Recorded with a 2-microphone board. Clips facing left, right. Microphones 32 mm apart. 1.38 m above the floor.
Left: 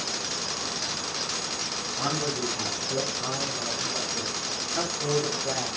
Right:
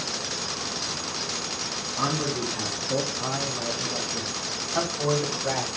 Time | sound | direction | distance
2.0 | a man speaking | 65° right (ahead or behind) | 3.5 m